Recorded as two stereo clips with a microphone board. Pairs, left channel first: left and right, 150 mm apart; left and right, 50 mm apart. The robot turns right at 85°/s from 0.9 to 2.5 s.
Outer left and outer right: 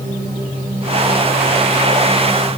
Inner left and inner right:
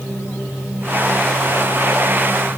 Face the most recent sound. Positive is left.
No sound to turn to.